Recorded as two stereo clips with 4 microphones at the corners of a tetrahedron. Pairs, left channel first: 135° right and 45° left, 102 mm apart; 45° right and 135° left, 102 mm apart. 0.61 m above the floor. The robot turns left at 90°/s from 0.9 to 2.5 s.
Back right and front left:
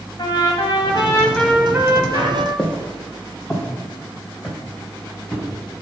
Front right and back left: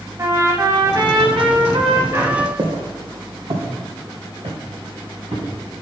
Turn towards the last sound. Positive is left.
turn(degrees=130)